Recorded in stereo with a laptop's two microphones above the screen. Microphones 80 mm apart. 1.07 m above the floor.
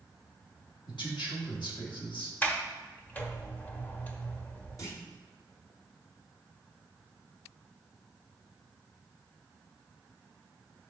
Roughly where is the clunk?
Left.